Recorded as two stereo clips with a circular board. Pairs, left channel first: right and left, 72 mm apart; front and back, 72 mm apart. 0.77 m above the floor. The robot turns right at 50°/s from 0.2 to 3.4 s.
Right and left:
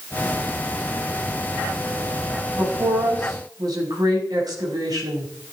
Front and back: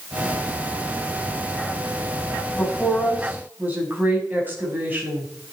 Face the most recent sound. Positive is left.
turn(degrees=115)